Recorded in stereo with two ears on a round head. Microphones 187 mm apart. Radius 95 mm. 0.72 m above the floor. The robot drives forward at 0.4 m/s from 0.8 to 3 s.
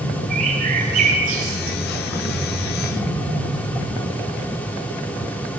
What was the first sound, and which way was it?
A bird, 40° right (ahead or behind).